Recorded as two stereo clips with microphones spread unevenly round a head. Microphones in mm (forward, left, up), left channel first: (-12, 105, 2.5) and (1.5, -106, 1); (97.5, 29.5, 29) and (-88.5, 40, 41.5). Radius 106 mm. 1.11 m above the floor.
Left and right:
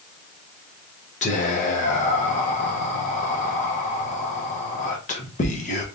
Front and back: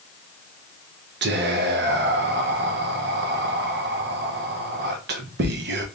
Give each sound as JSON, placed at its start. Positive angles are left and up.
{"t": 1.2, "sound": "whispering", "azimuth_deg": 150, "distance_m": 0.7}